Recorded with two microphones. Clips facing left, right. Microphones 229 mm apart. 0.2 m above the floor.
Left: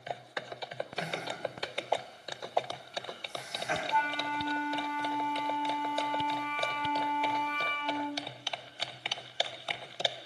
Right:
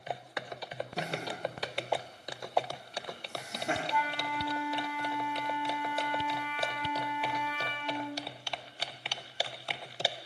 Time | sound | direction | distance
1.0 | laughter | 70° right (ahead or behind) | 6.5 m
3.9 | a flute | 10° right (ahead or behind) | 1.6 m